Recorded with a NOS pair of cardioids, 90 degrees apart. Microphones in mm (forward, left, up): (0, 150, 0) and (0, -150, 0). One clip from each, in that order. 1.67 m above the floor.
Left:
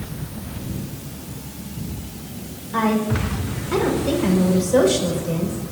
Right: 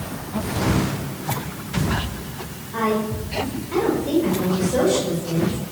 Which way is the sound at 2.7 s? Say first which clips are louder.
Left 1 dB; 40° left.